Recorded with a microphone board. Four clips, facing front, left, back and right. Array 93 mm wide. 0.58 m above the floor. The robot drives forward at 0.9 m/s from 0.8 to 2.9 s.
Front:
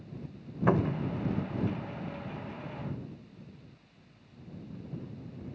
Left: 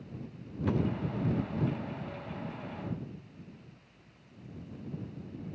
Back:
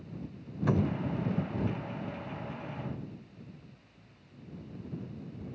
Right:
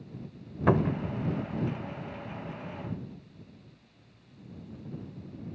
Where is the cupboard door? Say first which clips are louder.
Right 6 dB, front 2 dB; 60° right; by 1.1 s 95° right.